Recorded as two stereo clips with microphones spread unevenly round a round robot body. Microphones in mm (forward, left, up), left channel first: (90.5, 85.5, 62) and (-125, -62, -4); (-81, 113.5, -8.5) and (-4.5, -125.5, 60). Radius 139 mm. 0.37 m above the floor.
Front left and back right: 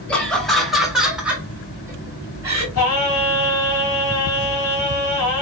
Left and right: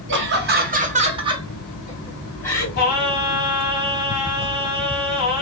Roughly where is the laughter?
Right.